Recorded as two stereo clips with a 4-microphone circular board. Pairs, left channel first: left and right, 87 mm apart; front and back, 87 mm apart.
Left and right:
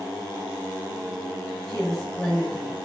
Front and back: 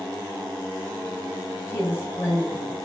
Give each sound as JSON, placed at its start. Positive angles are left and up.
{"t": 1.7, "sound": "a woman speaking", "azimuth_deg": 10, "distance_m": 1.5}